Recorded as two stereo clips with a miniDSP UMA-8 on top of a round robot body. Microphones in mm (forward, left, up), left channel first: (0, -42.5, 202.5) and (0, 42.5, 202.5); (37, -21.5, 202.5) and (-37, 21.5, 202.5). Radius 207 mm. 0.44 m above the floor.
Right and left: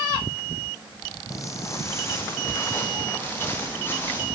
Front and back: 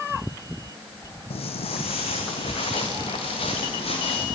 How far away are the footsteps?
About 1.4 m.